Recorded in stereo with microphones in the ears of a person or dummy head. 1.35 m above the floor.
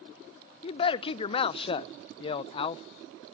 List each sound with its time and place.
0.6 s a man speaking: 35° left (ahead or behind), 0.5 m